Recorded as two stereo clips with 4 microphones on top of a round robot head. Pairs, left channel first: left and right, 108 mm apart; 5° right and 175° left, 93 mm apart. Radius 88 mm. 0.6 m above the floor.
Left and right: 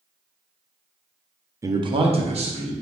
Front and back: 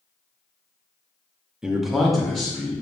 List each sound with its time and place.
1.6 s a man speaking: 115° right, 0.6 m; by 2.7 s 90° right, 1.7 m